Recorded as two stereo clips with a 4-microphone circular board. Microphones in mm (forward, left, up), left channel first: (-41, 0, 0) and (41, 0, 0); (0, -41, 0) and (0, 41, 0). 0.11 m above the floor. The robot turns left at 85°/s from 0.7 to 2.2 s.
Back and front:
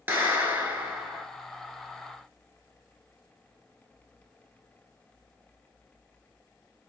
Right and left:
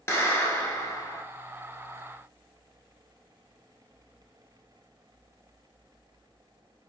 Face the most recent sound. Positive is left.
turn(degrees=-175)